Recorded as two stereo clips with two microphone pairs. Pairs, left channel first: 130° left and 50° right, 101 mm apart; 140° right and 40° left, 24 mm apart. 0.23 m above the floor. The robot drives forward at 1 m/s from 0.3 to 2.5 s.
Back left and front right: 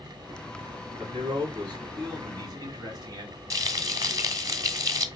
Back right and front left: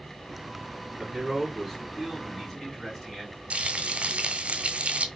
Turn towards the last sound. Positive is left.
turn(degrees=0)